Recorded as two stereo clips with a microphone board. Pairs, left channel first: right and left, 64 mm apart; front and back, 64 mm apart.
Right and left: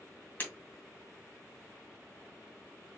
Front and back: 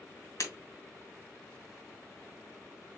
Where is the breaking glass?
30° right, 2.5 m.